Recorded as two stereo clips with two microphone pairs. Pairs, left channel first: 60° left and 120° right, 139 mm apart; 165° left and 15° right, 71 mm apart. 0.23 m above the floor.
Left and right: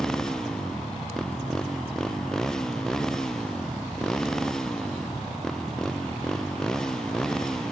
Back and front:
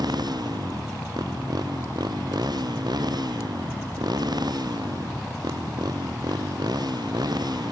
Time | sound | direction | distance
0.0 | a motorcycle | 25° right | ?